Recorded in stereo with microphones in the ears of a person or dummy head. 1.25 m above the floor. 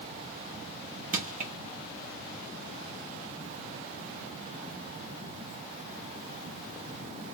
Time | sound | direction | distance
1.1 | crushing | 40° right (ahead or behind) | 0.9 m